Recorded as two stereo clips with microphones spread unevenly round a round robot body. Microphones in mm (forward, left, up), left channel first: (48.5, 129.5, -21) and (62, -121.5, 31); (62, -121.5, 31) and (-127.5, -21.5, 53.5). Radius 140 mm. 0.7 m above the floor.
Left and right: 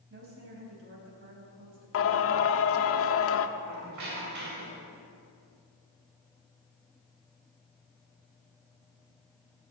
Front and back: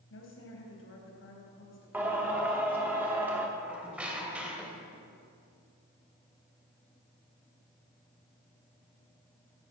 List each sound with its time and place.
0.1 s a woman speaking: 50° right, 4 m
1.9 s singing: 65° left, 0.9 m
3.6 s a squeak: 125° right, 3 m